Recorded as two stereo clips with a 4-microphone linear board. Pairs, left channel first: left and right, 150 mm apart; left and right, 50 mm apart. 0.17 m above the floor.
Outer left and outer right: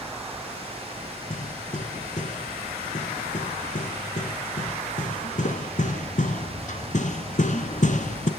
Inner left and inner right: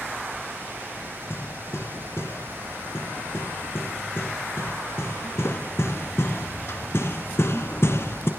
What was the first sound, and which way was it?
Hammering, 55° left (ahead or behind).